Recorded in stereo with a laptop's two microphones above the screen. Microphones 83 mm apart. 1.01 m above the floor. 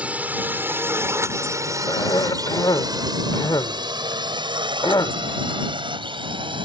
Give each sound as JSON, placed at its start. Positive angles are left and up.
{"t": 0.0, "sound": "a drone", "side_deg": -15}
{"t": 1.9, "sound": "a cough", "side_deg": 50}